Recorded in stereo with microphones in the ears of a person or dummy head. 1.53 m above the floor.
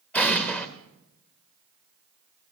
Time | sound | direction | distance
0.1 | an explosion | 15° left (ahead or behind) | 1.3 m